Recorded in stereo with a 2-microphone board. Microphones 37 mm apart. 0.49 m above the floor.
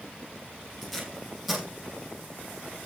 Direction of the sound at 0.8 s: 5° right (ahead or behind).